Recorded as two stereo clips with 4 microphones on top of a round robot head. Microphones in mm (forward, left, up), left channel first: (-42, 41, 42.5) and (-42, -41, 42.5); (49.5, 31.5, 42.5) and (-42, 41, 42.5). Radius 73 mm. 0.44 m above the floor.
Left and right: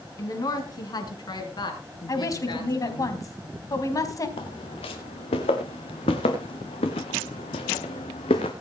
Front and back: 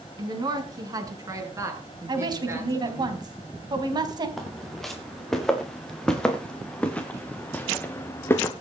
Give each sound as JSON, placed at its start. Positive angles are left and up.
{"t": 0.2, "sound": "a woman speaking", "azimuth_deg": 135, "distance_m": 4.5}
{"t": 2.1, "sound": "a woman speaking", "azimuth_deg": 135, "distance_m": 4.0}
{"t": 4.4, "sound": "footsteps", "azimuth_deg": 80, "distance_m": 4.5}